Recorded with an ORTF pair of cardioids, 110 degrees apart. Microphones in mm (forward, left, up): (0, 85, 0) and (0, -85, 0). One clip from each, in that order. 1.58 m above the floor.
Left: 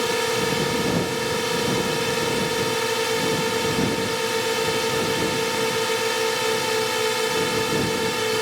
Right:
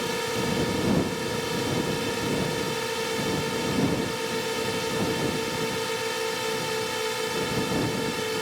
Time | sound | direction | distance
0.0 | a drone | 35° left | ?